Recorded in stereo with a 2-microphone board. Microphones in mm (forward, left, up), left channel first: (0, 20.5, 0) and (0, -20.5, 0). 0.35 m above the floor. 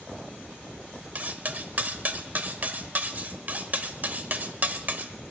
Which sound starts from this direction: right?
Cutlery clinking, at 1.1 s.